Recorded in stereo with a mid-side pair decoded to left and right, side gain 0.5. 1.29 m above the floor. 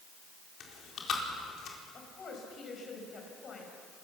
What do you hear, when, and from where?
0.6 s chewing: 60° left, 4.5 m
1.9 s a woman speaking: 45° left, 6 m